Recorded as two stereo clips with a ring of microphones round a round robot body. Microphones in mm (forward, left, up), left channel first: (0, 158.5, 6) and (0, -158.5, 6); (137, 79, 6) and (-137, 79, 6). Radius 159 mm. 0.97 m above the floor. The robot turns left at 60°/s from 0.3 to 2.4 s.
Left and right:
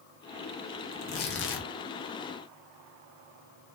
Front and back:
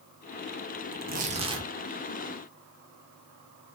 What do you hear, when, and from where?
0.9 s tearing paper: 150° left, 0.7 m; by 1.7 s 105° left, 0.7 m